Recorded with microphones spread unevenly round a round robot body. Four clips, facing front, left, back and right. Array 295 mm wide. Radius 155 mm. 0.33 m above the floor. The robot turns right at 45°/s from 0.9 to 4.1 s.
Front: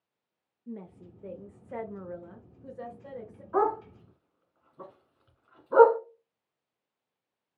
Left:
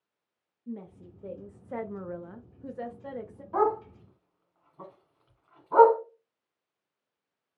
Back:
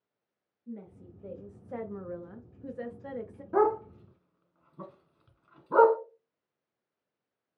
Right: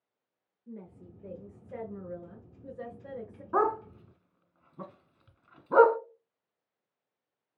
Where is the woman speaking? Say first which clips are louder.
Left 6 dB, front 1 dB; 30° left, 1.0 m; by 3.4 s 145° left, 1.0 m.